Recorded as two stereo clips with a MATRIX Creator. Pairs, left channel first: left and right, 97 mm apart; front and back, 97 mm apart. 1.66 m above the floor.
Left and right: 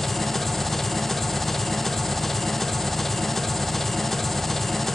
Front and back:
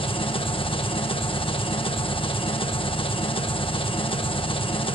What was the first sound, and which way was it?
An engine running, 5° left.